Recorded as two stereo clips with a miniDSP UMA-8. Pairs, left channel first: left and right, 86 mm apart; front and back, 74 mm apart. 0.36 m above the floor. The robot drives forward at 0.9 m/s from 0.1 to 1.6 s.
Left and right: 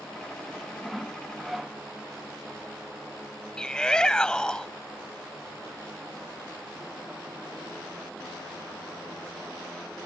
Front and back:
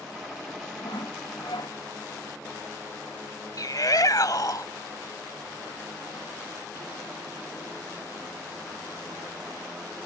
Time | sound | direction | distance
0.8 | sawing | 5° right | ?
3.6 | a shout | 10° left | ?